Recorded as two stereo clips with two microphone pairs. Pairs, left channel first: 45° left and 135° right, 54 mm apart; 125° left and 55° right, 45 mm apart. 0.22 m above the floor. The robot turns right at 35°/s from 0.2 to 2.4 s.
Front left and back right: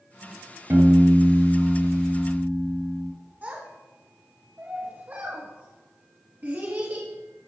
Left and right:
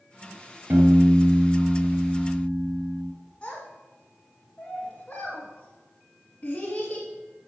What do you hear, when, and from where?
0.7 s a piano: 90° right, 2.5 m; by 3.1 s 30° right, 2.5 m
3.4 s a child speaking: 175° right, 1.6 m